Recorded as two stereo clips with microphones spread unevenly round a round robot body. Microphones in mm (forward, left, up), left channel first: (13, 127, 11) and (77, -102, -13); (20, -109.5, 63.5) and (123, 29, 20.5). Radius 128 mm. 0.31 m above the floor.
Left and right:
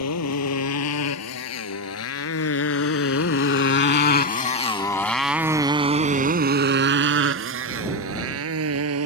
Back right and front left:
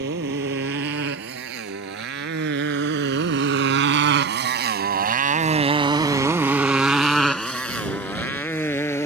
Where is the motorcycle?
90° left; by 9.1 s 55° right.